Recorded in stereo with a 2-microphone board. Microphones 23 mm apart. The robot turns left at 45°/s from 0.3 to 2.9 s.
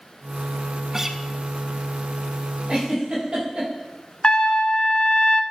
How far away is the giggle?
About 4 m.